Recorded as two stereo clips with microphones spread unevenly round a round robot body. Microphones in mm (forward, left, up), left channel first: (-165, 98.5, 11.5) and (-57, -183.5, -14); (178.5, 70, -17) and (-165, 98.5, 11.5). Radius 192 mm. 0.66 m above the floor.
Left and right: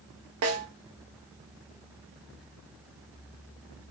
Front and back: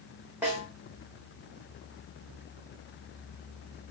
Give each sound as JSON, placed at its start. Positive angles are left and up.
{"t": 0.4, "sound": "a snare drum", "azimuth_deg": -95, "distance_m": 0.7}